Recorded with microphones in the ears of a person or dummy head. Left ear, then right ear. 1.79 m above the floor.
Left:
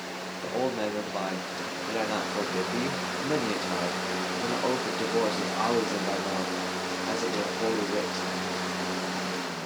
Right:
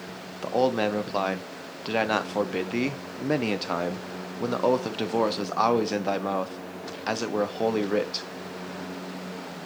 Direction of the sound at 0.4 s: 45° right (ahead or behind).